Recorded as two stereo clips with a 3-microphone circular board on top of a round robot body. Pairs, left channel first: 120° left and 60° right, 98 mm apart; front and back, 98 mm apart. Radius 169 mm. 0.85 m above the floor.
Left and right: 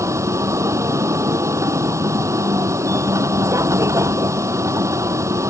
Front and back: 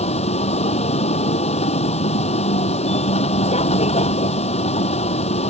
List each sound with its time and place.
0.0 s a vehicle: straight ahead